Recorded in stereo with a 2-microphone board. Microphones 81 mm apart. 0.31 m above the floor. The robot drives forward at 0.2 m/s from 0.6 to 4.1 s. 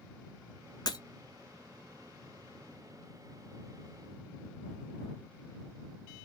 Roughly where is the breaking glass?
Left.